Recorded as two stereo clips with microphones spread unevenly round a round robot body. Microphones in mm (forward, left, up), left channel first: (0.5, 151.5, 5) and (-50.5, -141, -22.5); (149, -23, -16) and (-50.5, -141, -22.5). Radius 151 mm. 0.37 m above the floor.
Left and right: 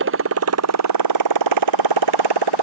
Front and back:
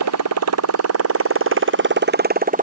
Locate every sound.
0.0 s a motorcycle: 150° right; by 2.6 s 95° right